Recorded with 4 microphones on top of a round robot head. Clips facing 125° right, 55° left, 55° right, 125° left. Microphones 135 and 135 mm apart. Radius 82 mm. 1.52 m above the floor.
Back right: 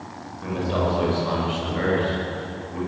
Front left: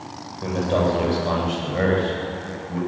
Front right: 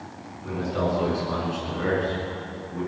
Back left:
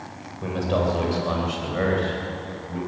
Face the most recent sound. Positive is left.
turn(degrees=100)